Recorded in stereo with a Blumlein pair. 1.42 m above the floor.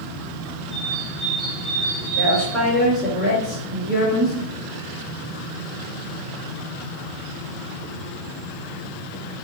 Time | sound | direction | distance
0.7 | a bird | 20° right | 1.1 m
2.2 | a woman speaking | straight ahead | 2.5 m